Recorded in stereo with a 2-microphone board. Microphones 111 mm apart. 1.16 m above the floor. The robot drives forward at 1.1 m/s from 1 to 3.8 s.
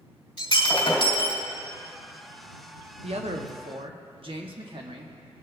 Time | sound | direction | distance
0.4 | breaking glass | 50° left (ahead or behind) | 2.5 m
3.0 | a man speaking | 65° right (ahead or behind) | 1.0 m